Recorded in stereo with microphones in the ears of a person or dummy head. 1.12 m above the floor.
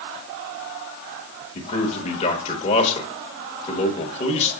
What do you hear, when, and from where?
1.6 s a man speaking: 35° left (ahead or behind), 1.3 m